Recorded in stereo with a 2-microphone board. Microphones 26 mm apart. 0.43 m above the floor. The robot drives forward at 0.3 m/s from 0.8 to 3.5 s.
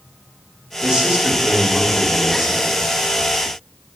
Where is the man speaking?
30° right (ahead or behind), 1.0 m; by 2.8 s 25° right (ahead or behind), 1.4 m.